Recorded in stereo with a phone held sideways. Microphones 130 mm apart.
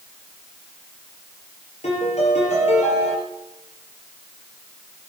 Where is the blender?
I don't hear a blender.